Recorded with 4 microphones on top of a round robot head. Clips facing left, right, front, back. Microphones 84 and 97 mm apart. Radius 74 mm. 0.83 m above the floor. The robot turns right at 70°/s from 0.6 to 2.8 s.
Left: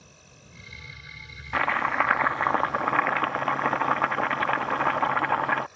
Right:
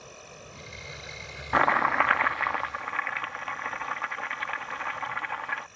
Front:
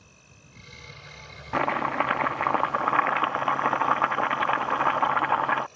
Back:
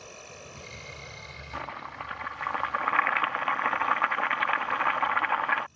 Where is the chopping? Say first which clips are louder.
Right 2 dB, front 13 dB; 30° right; by 5.7 s 60° left.